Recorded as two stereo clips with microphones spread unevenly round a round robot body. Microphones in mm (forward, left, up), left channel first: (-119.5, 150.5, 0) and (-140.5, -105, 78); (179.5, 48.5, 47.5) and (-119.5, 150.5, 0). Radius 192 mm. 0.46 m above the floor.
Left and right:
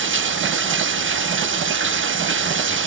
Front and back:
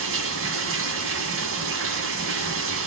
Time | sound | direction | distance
0.0 | running water | 140° right | 1.4 m